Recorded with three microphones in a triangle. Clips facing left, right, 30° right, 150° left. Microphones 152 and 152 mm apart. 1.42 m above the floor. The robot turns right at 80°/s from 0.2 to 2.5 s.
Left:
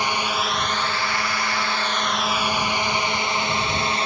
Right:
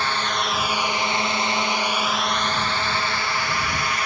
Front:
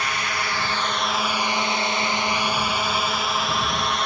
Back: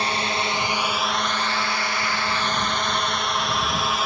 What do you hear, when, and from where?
0.0 s a drone: 150° left; by 4.1 s 65° left